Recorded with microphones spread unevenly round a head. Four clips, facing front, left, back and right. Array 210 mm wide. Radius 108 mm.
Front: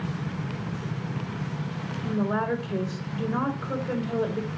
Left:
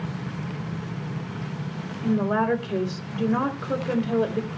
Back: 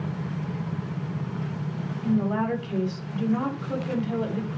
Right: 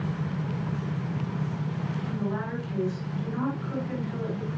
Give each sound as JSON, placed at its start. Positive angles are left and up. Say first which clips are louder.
{"t": 2.0, "sound": "a woman speaking", "louder": "left 12 dB, back 2 dB", "azimuth_deg": 85, "distance_m": 5.0}